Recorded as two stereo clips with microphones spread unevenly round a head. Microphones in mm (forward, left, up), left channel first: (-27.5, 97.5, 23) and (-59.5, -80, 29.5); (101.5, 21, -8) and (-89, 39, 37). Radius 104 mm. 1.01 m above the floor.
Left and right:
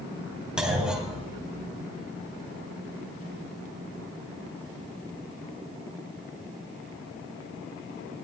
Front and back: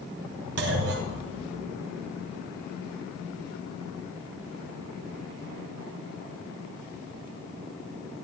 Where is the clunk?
175° left, 3 m.